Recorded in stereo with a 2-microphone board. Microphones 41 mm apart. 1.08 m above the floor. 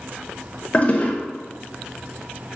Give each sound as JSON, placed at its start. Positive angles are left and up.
{"t": 0.7, "sound": "a toilet flushing", "side_deg": 30, "distance_m": 0.7}